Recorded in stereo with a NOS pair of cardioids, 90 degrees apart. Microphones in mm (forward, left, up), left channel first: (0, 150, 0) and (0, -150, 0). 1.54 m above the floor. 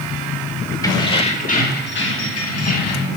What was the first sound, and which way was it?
Keys jangling, 10° left.